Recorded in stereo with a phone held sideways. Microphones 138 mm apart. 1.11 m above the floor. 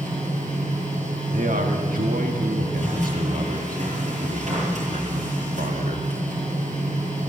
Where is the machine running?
60° right (ahead or behind), 9 m.